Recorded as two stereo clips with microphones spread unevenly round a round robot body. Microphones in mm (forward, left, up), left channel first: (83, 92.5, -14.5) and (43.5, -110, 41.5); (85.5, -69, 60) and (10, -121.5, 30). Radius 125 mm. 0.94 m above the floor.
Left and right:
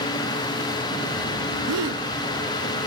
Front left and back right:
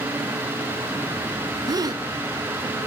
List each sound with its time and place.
1.7 s a gasp: 105° right, 0.9 m